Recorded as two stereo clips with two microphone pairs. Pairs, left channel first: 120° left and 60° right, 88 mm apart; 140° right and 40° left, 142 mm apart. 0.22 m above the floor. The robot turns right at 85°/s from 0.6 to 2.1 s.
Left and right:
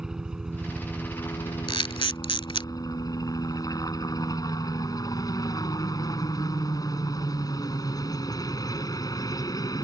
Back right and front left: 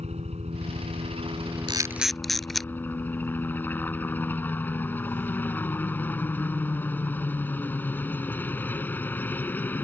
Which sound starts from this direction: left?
A camera shutter, at 1.7 s.